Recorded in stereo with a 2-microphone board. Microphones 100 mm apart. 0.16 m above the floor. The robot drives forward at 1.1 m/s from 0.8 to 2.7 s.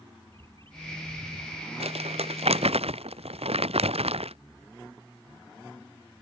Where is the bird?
60° right (ahead or behind); by 1.7 s 65° right (ahead or behind).